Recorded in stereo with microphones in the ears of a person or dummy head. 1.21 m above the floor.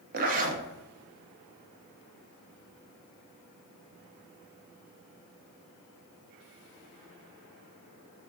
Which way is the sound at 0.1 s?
45° right (ahead or behind).